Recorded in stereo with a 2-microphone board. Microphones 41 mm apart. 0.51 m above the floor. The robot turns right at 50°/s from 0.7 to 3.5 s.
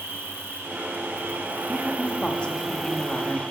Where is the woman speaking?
15° left (ahead or behind), 0.7 m; by 3.4 s 25° left (ahead or behind), 0.7 m.